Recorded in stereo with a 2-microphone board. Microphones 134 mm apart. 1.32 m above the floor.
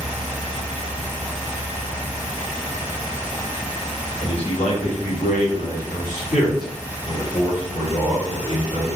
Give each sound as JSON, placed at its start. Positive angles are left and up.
{"t": 4.2, "sound": "a man speaking", "side_deg": 40, "distance_m": 1.2}